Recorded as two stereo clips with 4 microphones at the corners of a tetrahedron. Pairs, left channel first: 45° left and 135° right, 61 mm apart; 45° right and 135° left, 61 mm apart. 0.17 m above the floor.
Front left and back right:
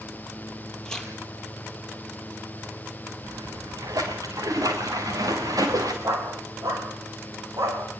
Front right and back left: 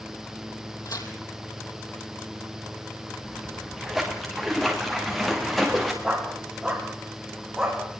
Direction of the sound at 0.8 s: 35° right.